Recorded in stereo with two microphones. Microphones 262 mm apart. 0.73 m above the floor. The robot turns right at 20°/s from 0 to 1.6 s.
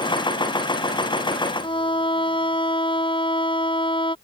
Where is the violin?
20° left (ahead or behind).